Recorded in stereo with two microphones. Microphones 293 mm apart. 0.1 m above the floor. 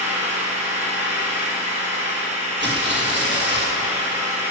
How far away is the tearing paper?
About 3 m.